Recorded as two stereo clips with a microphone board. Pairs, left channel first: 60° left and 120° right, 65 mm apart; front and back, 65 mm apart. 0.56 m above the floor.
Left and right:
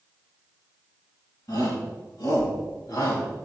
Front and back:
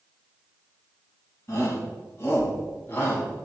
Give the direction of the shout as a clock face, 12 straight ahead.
10 o'clock.